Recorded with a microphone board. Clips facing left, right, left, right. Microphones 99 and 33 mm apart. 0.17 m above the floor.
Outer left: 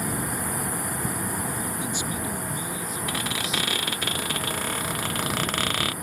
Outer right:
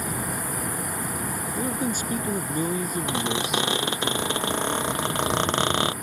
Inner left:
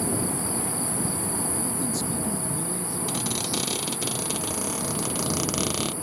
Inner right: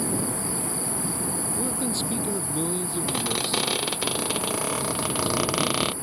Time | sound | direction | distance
1.6 | a man speaking | 45° right (ahead or behind) | ?
3.1 | a squeak | 25° right (ahead or behind) | ?